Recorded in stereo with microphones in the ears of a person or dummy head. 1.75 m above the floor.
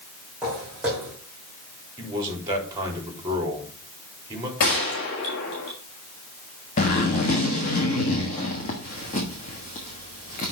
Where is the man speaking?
20° right (ahead or behind), 3.5 m.